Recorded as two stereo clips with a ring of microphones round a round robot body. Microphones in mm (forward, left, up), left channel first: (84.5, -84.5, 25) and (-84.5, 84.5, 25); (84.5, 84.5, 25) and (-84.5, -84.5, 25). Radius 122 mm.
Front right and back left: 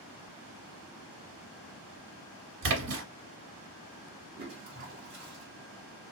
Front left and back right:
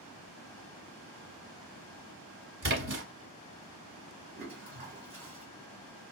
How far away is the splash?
About 1.1 m.